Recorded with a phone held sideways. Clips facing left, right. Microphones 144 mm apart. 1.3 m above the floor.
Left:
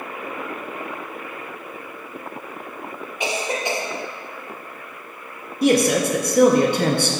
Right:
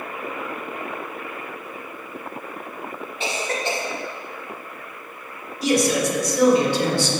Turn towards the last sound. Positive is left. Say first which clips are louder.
# left 3 dB
turn(degrees=55)  # may be behind; listen again after turning